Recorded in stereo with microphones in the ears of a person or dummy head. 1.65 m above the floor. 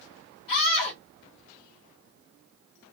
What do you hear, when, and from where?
0.5 s a scream: 70° left (ahead or behind), 1.1 m